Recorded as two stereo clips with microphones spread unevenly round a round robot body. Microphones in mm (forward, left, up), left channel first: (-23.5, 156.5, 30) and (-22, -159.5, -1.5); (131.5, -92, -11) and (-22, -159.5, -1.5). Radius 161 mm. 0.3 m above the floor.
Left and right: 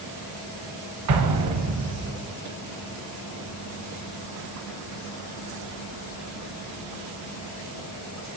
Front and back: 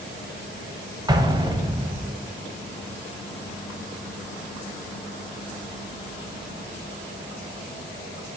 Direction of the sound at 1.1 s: 90° right.